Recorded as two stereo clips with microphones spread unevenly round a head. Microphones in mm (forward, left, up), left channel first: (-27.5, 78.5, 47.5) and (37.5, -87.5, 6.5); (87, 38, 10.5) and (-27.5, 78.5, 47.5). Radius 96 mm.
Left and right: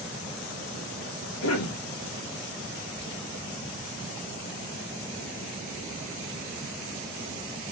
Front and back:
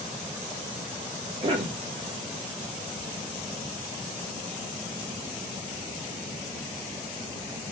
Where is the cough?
105° left, 0.8 m.